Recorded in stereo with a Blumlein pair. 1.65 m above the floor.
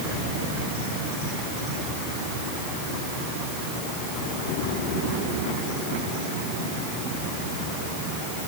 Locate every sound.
Only background noise.